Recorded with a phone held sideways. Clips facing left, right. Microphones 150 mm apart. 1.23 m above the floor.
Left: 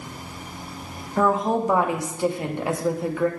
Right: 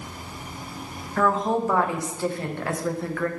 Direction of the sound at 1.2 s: 15° left (ahead or behind).